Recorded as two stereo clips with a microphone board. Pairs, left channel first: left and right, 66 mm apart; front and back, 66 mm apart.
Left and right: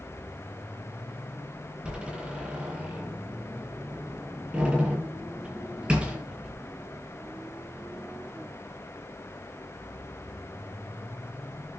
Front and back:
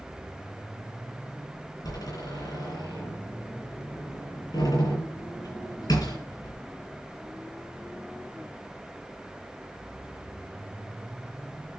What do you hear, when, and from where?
1.8 s a door slam: 15° right, 8 m